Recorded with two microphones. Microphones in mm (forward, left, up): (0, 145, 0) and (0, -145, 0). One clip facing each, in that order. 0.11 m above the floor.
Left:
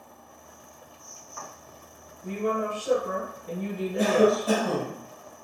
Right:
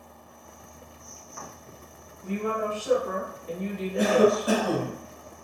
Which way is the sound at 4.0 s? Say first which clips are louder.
Right 1 dB; 15° right (ahead or behind).